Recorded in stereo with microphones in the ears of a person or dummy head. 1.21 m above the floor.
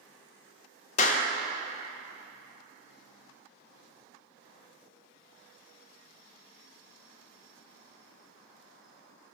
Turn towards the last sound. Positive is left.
turn(degrees=45)  # may be behind; listen again after turning